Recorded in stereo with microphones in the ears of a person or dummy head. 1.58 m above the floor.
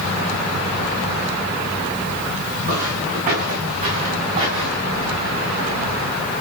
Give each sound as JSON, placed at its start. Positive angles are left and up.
{"t": 2.6, "sound": "footsteps", "side_deg": -45, "distance_m": 8.0}